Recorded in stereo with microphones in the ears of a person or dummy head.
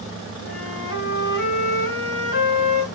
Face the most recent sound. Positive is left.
turn(degrees=75)  # may be behind; listen again after turning